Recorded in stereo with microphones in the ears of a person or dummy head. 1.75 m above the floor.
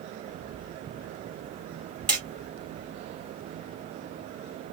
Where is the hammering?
Centre (ahead or behind), 1.1 m.